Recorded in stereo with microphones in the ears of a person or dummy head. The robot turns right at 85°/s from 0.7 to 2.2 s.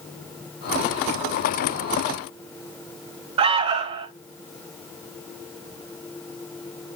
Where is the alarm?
35° right (ahead or behind), 1.0 m.